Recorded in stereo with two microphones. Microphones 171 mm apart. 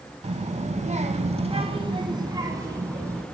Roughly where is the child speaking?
Right.